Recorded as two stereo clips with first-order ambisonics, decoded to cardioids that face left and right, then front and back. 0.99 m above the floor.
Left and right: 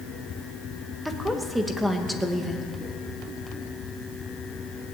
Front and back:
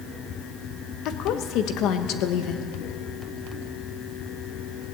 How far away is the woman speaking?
About 1.1 m.